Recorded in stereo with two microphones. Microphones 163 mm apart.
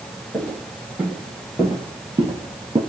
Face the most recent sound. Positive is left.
turn(degrees=-35)  # may be behind; listen again after turning